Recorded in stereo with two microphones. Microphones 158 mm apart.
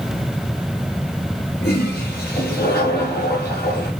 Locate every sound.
1.6 s a toilet flushing: 70° left (ahead or behind), 6 m